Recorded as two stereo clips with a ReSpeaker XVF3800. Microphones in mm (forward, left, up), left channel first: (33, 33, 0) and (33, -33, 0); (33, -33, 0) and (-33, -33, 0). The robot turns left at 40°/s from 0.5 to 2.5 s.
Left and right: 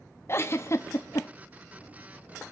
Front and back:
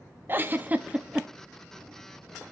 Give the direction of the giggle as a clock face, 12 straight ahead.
8 o'clock.